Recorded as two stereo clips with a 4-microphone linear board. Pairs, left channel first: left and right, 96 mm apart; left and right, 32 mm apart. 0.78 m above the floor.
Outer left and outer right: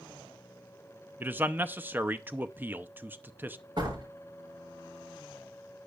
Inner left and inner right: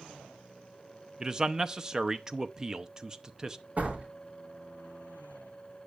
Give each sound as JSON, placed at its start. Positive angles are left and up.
{"t": 1.2, "sound": "a man speaking", "side_deg": -20, "distance_m": 0.6}
{"t": 3.8, "sound": "a door slam", "side_deg": -50, "distance_m": 7.5}